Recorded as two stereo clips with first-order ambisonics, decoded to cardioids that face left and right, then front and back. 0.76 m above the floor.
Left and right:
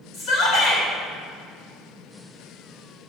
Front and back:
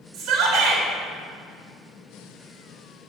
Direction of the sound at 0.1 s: 145° left.